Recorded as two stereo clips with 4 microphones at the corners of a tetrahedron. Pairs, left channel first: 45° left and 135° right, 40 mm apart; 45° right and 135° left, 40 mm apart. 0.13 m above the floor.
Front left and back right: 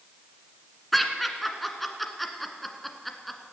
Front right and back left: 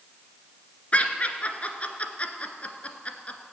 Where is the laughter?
40° right, 1.4 m.